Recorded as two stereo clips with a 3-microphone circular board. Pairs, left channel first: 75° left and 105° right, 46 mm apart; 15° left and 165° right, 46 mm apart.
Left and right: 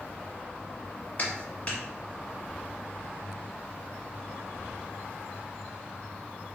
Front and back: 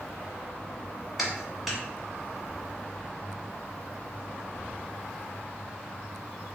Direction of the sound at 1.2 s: 110° left.